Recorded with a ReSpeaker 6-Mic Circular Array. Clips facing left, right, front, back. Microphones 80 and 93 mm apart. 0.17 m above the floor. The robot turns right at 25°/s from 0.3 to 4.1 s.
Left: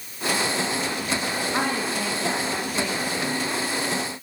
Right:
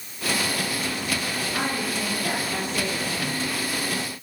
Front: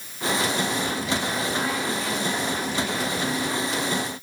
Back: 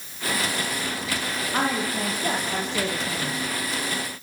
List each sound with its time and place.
1.5 s a woman speaking: 140° left, 8 m; by 3.4 s 175° right, 8 m